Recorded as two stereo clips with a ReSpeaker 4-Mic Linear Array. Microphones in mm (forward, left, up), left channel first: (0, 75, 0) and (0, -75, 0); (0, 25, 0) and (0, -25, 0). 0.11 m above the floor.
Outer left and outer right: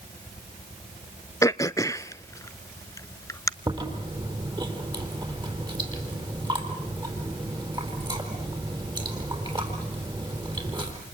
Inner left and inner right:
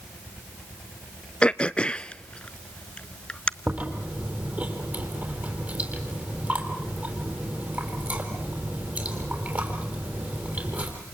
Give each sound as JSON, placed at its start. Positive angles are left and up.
{"t": 1.4, "sound": "throat clearing", "side_deg": 20, "distance_m": 0.5}
{"t": 3.7, "sound": "chewing", "side_deg": -30, "distance_m": 4.5}